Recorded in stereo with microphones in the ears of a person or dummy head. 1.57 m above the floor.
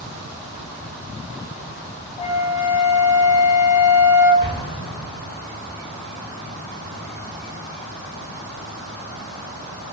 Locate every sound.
2.2 s a flute: 15° left (ahead or behind), 1.3 m
4.4 s an explosion: 25° left (ahead or behind), 1.8 m